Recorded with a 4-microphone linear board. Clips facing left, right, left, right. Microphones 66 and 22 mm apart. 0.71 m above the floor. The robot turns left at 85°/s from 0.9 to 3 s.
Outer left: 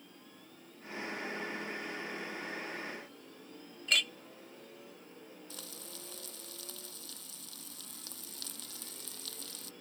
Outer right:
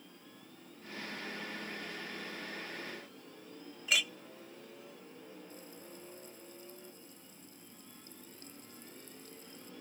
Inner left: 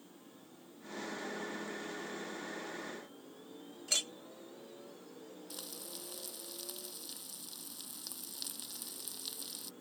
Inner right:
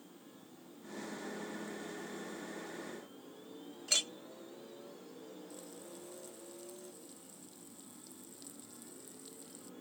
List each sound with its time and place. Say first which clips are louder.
3.9 s a clink: even, inner right 2 dB; 5° right (ahead or behind)
5.5 s frying: even, inner left 3 dB; 85° left